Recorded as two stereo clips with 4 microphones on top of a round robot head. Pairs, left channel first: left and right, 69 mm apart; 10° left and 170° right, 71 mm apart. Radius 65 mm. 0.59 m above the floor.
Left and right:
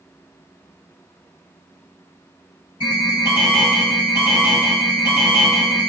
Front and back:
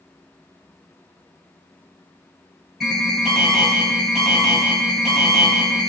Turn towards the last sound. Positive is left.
turn(degrees=100)